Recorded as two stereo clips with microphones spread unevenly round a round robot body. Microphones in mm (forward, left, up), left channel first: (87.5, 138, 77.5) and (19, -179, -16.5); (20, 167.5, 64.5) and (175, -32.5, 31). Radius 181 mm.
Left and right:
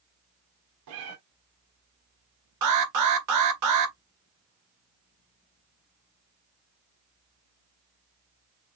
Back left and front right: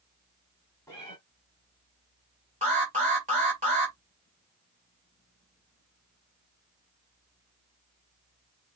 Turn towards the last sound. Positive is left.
turn(degrees=-115)